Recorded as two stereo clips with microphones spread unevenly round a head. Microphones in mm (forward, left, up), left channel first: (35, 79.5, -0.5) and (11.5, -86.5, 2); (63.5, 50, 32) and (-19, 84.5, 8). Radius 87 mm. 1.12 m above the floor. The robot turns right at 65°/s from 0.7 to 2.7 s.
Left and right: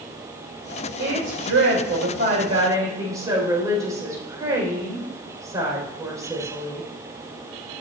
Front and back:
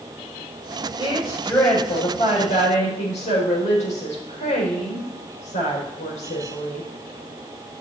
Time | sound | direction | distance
1.0 | a woman speaking | 135° right | 5 m